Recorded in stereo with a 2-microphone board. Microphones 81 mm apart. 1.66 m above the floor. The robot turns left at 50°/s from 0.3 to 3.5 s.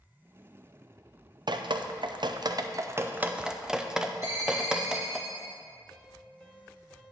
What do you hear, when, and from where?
1.5 s dripping: 65° right (ahead or behind), 0.5 m; by 5.2 s 10° right (ahead or behind), 0.5 m
4.2 s a ringtone: 40° right (ahead or behind), 3 m
5.9 s a piano: 10° left (ahead or behind), 1.5 m